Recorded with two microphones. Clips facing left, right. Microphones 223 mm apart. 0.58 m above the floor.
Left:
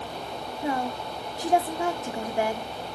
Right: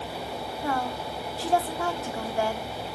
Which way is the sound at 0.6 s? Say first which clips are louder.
Left 2 dB; 20° left (ahead or behind).